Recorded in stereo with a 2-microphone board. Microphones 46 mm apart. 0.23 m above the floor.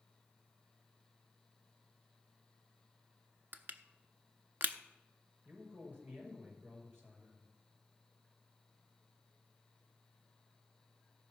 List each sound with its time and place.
3.5 s crushing: 50° right (ahead or behind), 0.6 m
5.5 s a man speaking: 50° right (ahead or behind), 5 m